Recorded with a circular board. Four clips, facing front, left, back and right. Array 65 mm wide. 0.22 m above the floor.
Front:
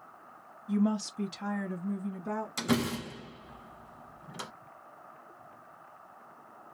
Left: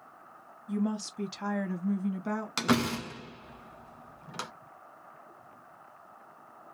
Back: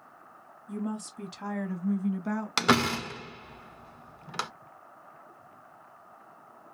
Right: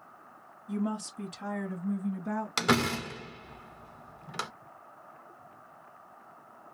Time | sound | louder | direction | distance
0.7 | a woman speaking | left 1 dB, front 6 dB | 15° left | 1.2 m
2.6 | a door slam | right 1 dB, back 7 dB | 170° right | 1.4 m